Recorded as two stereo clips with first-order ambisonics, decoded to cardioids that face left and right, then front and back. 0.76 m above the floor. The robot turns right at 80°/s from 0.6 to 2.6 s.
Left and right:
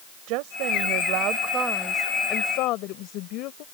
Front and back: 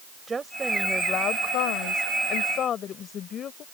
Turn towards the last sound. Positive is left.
turn(degrees=55)